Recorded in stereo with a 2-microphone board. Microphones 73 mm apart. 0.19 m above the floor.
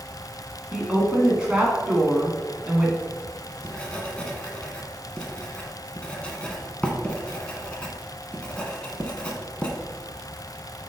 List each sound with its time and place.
0.7 s a woman speaking: 15° right (ahead or behind), 2 m
3.1 s writing: 15° left (ahead or behind), 1.3 m